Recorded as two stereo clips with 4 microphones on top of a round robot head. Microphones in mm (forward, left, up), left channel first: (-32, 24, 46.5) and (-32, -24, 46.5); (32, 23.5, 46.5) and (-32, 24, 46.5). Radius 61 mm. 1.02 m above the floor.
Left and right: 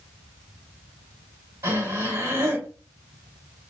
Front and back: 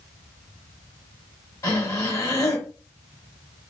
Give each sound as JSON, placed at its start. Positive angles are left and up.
{"t": 1.6, "sound": "breathing", "azimuth_deg": -55, "distance_m": 3.0}